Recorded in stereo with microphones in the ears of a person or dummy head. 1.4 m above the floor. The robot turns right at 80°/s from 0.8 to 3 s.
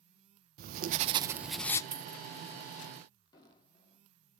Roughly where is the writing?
Ahead right.